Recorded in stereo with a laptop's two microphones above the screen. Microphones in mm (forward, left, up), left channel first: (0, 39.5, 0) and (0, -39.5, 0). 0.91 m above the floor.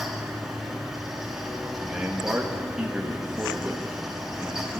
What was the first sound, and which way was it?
A fan, 5° right (ahead or behind).